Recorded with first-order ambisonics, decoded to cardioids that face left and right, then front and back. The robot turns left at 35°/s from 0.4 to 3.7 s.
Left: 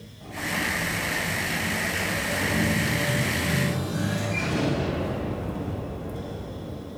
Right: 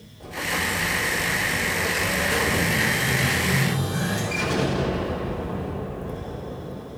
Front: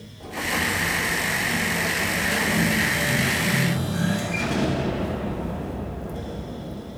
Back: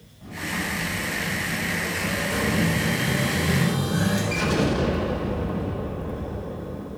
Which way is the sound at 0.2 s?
35° right.